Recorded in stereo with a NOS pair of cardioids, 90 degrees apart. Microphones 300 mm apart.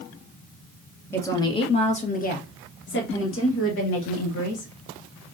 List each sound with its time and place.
1.1 s a woman speaking: 10° left, 1.4 m; by 4.7 s 55° left, 2.5 m